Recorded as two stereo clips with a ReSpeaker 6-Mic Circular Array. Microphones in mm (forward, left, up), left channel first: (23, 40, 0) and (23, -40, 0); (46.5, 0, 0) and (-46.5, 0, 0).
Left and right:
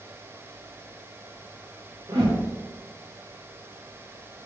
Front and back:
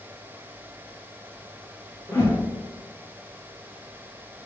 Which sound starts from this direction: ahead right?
A whoosh, at 2.1 s.